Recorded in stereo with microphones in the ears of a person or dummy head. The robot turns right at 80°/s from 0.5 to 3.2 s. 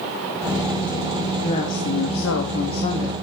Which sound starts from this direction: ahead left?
A woman speaking, at 1.4 s.